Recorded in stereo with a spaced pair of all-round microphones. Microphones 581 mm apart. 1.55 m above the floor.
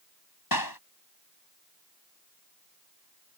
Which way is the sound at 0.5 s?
35° left (ahead or behind).